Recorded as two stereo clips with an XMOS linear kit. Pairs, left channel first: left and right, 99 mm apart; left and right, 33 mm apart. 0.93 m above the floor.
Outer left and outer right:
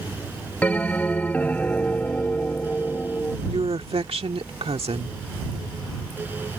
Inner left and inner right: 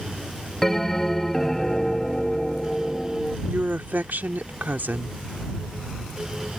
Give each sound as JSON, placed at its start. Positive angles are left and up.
{"t": 0.6, "sound": "a bell", "side_deg": 15}
{"t": 3.5, "sound": "a woman speaking", "side_deg": -80}